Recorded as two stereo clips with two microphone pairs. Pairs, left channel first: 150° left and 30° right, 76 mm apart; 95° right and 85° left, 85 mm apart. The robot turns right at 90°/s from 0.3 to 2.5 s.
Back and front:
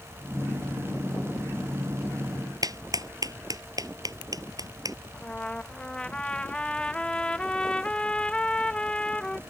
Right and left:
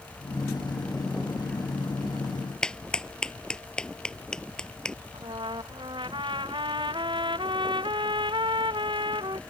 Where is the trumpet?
70° left.